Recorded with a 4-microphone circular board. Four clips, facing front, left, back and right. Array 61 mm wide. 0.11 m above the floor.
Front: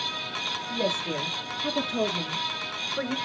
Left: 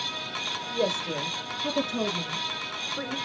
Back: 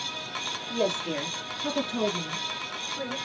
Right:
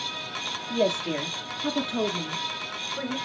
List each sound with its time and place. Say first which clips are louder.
0.7 s a woman speaking: right 3 dB, back 2 dB; 115° right, 3 m; by 3.2 s 5° left, 1.8 m